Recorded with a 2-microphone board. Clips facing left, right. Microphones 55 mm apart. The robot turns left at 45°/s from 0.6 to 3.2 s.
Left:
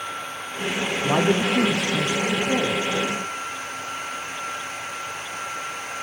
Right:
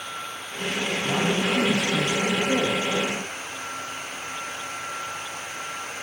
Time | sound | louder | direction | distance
1.0 | a man speaking | left 5 dB | 85° left | 0.9 m